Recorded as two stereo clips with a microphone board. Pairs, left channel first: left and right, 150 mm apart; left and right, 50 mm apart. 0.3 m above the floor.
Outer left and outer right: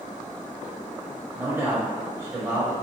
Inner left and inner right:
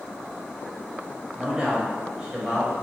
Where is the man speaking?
20° right (ahead or behind), 1.2 m.